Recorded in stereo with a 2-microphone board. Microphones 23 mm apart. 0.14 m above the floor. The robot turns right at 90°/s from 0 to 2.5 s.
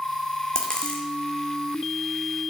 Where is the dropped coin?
20° left (ahead or behind), 0.7 m; by 1.1 s 65° left (ahead or behind), 0.7 m.